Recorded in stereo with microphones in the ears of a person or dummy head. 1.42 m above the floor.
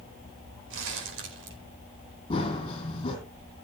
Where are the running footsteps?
30° left (ahead or behind), 3.5 m.